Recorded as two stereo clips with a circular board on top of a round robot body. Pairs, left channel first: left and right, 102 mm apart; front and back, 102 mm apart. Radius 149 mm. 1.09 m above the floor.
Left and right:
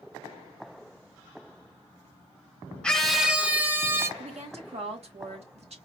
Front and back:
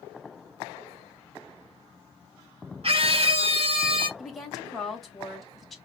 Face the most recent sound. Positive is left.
turn(degrees=-90)